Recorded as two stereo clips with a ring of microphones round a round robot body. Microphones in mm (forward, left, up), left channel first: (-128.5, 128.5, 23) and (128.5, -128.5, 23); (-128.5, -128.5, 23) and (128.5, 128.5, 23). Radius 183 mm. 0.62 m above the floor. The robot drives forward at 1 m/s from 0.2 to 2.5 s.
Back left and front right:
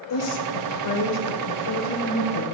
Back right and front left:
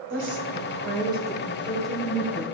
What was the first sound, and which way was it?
A woman speaking, 100° left.